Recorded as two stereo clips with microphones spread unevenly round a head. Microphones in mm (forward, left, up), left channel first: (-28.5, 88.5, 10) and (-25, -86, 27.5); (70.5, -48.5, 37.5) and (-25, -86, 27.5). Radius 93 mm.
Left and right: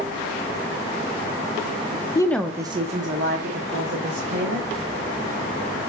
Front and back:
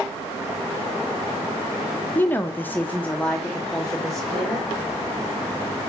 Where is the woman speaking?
80° left, 0.6 m; by 4.7 s 65° right, 2 m.